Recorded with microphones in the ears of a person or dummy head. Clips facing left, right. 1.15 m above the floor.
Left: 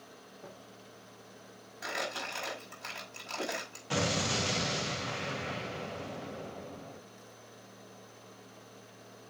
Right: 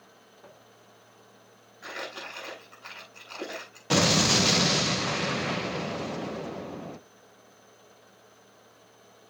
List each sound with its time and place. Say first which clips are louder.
0.4 s footsteps: left 2 dB; 45° left (ahead or behind), 3.5 m
1.8 s crumpling: left 1 dB; 85° left, 5 m
3.9 s an explosion: right 8 dB; 80° right, 0.6 m